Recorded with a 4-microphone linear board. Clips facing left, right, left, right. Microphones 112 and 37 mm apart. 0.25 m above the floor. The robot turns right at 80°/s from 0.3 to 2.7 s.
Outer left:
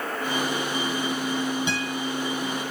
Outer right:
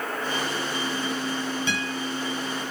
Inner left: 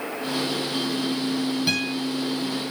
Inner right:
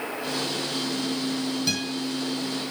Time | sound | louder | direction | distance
1.7 | a guitar | outer left 1 dB, inner left 3 dB | 20° left (ahead or behind) | 2.5 m